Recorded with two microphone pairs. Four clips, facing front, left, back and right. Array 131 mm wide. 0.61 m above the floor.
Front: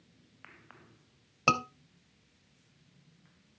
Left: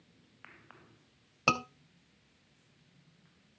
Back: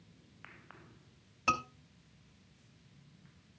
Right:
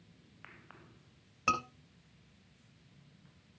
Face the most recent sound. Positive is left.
turn(degrees=35)